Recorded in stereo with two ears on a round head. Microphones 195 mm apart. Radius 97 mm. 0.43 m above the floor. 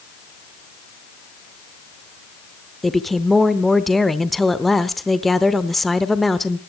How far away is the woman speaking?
About 0.8 m.